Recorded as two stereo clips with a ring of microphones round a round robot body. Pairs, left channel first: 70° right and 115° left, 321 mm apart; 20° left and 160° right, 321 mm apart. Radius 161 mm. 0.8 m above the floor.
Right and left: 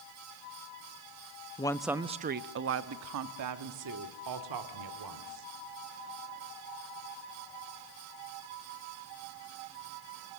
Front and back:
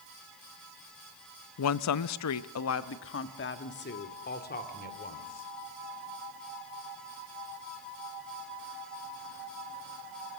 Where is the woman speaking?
Straight ahead, 0.6 m; by 5.5 s 90° left, 3 m.